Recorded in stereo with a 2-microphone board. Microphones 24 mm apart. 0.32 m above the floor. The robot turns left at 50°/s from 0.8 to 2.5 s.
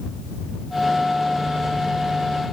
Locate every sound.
Only background noise.